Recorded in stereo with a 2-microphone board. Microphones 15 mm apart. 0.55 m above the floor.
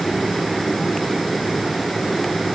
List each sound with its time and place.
Only background noise.